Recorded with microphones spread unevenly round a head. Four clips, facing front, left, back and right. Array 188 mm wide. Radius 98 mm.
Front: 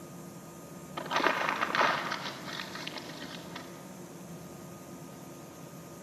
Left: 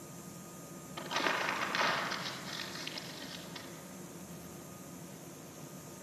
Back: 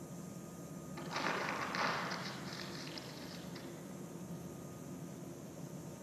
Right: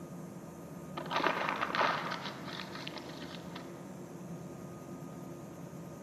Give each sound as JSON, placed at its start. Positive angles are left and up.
{"t": 1.0, "sound": "crumpling", "azimuth_deg": -15, "distance_m": 1.6}